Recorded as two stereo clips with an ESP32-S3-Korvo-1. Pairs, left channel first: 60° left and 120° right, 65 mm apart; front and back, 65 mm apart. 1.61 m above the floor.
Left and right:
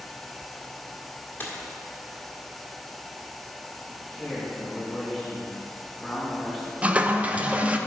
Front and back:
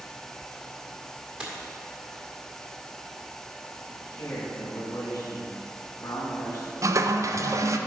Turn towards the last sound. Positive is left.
turn(degrees=175)